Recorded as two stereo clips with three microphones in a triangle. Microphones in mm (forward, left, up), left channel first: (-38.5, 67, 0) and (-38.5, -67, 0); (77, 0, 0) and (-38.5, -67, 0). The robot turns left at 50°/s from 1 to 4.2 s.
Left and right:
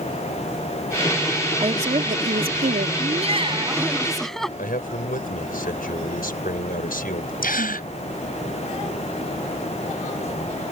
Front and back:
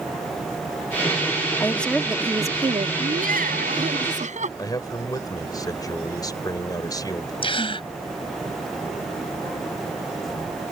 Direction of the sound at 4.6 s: 95° left.